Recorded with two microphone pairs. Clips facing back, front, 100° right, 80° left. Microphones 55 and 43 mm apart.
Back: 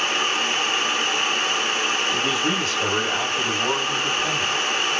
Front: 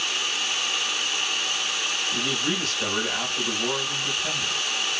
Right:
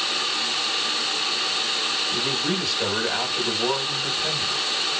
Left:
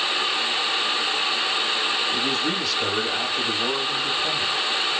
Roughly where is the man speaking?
Behind right.